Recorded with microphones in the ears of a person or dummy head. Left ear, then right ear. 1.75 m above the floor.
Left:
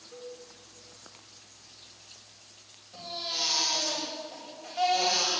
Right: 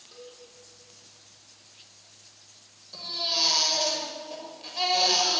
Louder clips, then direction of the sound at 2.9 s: Right 6 dB; 50° right (ahead or behind).